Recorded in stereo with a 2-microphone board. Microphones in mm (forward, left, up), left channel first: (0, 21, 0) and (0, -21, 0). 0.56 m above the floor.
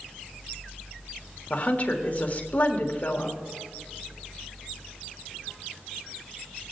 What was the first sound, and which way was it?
A woman speaking, 45° left (ahead or behind).